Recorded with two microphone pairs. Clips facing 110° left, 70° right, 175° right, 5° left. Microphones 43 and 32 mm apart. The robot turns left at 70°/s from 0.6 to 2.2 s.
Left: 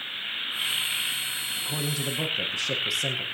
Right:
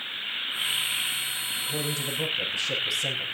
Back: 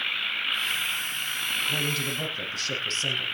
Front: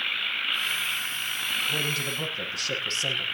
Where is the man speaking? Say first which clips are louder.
Left 1 dB, even; 125° left, 4.5 m; by 3.2 s 90° left, 4.5 m.